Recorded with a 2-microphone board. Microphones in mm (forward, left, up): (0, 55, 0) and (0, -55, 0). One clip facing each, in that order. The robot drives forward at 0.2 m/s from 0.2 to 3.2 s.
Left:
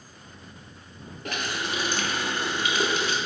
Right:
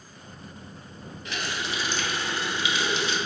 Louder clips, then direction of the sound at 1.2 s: Left 2 dB; 55° left (ahead or behind).